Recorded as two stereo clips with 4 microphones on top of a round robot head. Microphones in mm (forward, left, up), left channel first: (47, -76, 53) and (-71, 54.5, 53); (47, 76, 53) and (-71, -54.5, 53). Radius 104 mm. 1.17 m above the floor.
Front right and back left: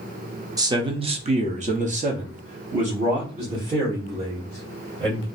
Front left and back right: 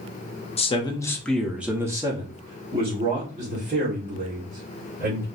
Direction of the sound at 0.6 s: 75° left.